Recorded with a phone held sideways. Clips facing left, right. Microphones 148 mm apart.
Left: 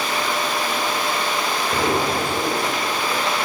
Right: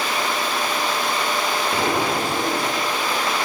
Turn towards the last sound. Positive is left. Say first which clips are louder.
# left 2 dB
turn(degrees=0)  # may be behind; listen again after turning